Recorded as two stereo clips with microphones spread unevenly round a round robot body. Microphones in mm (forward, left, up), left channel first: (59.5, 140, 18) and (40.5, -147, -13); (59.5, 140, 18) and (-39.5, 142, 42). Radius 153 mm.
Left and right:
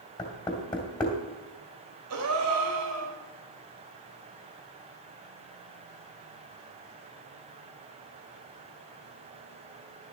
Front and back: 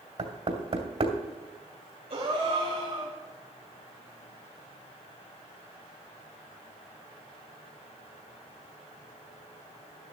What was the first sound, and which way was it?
Knocking, 165° left.